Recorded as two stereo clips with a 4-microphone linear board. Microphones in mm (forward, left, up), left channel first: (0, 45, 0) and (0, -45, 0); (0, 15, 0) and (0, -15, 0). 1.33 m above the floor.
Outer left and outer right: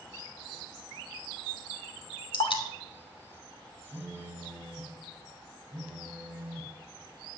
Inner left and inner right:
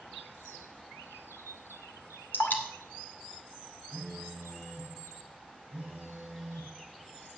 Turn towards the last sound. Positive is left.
turn(degrees=-20)  # may be behind; listen again after turning